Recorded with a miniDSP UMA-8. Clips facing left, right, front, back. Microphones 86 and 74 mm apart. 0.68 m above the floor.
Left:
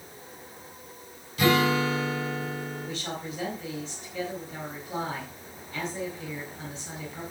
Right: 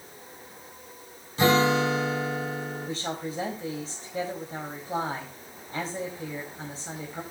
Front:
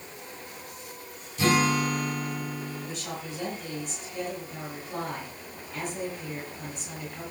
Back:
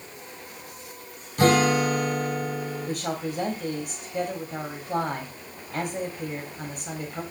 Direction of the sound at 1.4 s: 150° right.